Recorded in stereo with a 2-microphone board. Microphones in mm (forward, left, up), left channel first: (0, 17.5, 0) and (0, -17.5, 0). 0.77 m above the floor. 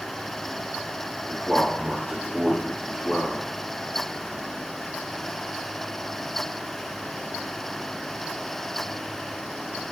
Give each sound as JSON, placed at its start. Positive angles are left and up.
{"t": 1.3, "sound": "a man speaking", "side_deg": -20, "distance_m": 1.7}